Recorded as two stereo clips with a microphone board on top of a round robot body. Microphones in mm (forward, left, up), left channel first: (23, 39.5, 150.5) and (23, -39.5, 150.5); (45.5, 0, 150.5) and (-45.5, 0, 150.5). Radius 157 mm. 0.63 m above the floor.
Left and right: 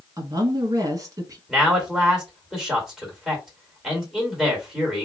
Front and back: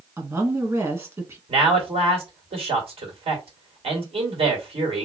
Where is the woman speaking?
125° right, 1.6 m.